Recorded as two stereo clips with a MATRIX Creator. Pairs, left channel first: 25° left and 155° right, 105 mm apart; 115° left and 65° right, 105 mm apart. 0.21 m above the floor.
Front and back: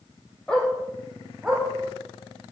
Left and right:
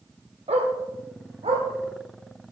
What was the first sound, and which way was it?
A dog barking, 60° right.